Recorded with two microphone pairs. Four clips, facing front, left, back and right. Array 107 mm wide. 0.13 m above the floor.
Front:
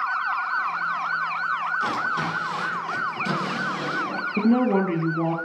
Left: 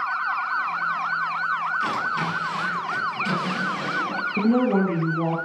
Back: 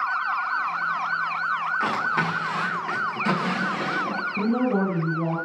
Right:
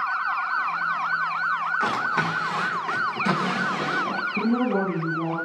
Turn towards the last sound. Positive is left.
turn(degrees=15)